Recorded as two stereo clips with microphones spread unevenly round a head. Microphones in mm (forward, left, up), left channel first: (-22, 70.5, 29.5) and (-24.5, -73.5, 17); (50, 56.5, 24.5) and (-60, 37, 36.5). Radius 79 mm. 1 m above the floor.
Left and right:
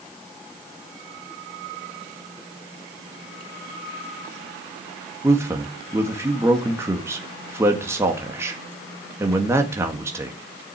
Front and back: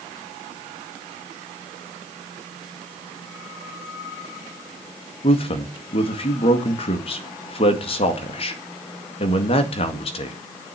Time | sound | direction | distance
5.2 | a man speaking | 20° right | 1.8 m